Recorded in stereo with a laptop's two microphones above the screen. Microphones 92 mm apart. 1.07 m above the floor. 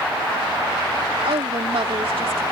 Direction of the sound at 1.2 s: 85° right.